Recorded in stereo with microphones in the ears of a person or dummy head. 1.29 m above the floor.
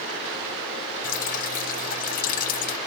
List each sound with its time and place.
1.0 s dripping: 40° left (ahead or behind), 0.6 m